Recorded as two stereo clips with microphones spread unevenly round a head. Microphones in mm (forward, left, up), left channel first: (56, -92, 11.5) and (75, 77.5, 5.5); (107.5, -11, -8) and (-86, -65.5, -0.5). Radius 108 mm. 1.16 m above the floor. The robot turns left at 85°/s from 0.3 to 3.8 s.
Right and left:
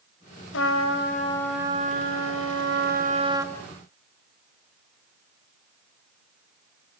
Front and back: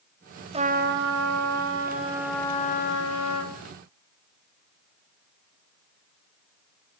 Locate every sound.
0.5 s a trumpet: 105° right, 3.5 m; by 3.5 s straight ahead, 3.5 m